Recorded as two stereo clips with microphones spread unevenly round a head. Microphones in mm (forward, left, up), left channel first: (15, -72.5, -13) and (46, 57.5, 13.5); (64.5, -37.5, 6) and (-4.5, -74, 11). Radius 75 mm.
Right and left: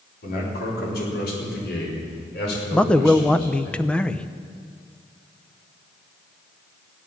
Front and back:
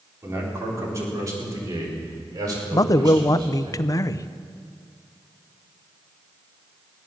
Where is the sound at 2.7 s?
20° right, 0.7 m.